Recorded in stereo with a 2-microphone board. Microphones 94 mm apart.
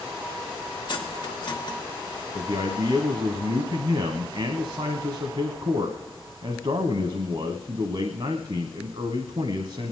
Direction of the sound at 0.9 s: 55° left (ahead or behind).